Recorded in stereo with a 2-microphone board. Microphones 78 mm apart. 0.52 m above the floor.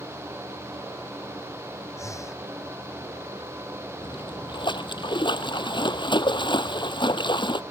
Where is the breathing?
40° left (ahead or behind).